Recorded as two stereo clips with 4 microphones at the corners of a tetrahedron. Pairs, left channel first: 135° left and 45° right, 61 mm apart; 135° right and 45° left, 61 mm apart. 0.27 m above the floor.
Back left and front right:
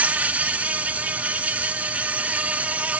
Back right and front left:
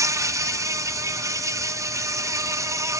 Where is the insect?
20° left, 0.7 m.